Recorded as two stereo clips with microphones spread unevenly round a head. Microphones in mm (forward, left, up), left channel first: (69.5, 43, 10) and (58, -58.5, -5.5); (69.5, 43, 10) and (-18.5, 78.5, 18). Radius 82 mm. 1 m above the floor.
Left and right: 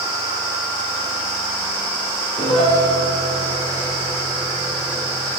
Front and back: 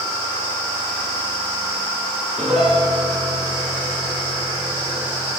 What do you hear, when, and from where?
2.4 s a piano: 75° left, 9.5 m